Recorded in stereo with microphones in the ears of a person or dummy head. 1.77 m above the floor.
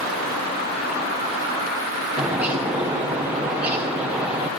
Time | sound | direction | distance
2.2 | a bird | 5° right (ahead or behind) | 1.0 m